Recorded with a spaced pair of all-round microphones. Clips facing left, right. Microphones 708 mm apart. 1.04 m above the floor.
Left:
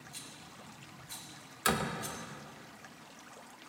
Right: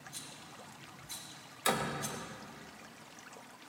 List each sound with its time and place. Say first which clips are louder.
0.1 s a rattle: even; 65° right (ahead or behind), 2.5 m
1.6 s a door slam: left 1 dB; 45° left (ahead or behind), 0.8 m